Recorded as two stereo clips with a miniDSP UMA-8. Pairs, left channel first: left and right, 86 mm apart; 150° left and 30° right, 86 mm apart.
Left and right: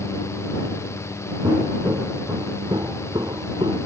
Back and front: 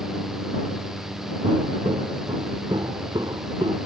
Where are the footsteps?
40° right; by 3.8 s 60° right.